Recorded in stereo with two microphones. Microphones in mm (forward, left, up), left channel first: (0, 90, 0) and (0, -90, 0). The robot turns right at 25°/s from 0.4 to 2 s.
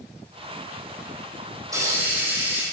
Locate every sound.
1.7 s a hiss: 20° right (ahead or behind), 2.5 m; by 2.6 s 10° right (ahead or behind), 2.5 m